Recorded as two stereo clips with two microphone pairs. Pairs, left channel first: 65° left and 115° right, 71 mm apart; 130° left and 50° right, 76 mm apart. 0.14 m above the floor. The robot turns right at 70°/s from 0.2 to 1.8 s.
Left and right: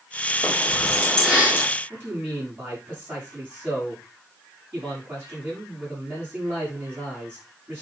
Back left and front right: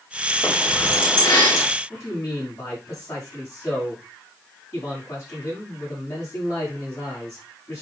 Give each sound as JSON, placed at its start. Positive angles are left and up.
{"t": 0.4, "sound": "keys jangling", "azimuth_deg": 90, "distance_m": 4.5}
{"t": 1.9, "sound": "a man speaking", "azimuth_deg": 180, "distance_m": 7.5}